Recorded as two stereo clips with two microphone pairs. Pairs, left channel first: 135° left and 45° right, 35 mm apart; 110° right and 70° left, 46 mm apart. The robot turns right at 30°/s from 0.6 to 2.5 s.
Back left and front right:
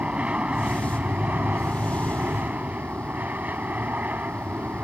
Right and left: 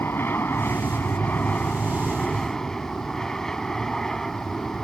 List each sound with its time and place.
0.0 s an aircraft: 90° right; by 4.8 s 35° right